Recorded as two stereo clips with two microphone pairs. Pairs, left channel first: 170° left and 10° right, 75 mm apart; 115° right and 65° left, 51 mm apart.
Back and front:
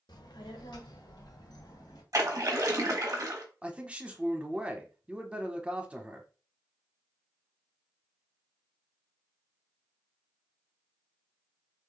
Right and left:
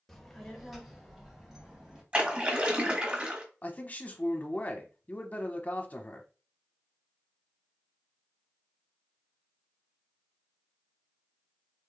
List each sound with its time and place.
0.1 s a child speaking: 160° left, 1.1 m; by 2.0 s 145° left, 2 m
2.1 s a splash: 15° left, 1.3 m
3.6 s a man speaking: 80° right, 0.9 m